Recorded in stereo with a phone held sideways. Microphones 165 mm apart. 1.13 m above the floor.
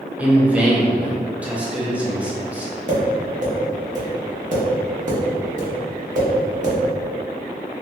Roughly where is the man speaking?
Centre.